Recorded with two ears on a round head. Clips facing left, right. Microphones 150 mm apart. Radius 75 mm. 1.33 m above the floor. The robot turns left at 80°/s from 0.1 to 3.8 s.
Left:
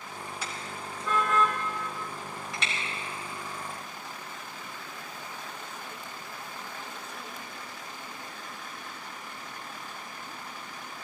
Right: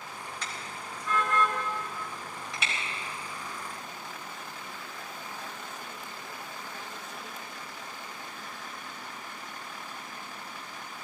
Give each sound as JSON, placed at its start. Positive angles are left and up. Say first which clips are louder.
{"t": 0.4, "sound": "a car horn", "louder": "left 2 dB", "side_deg": 5, "distance_m": 4.0}